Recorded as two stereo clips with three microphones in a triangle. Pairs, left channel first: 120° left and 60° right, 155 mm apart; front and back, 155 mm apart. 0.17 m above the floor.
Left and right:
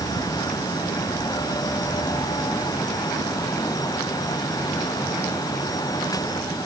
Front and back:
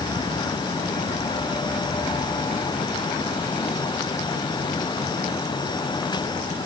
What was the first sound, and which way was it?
Only background noise.